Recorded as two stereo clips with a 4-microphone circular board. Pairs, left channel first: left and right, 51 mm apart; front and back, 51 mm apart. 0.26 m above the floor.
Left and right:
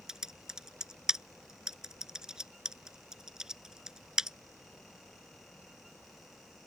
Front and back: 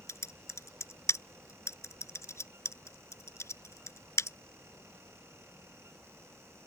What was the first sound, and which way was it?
Typing on a keyboard, 10° right.